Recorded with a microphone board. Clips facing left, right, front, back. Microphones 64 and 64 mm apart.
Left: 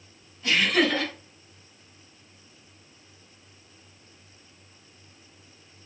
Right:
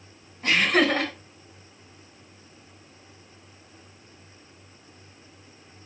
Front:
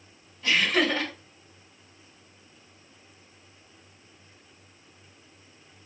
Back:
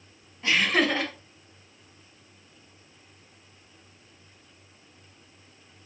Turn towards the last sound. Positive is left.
turn(degrees=-115)